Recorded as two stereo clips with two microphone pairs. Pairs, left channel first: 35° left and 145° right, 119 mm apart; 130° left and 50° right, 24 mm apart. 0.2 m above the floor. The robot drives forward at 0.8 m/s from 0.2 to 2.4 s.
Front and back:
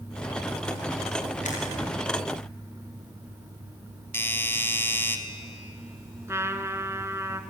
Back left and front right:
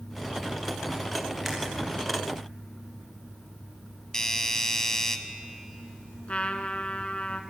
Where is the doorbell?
85° left, 1.8 m.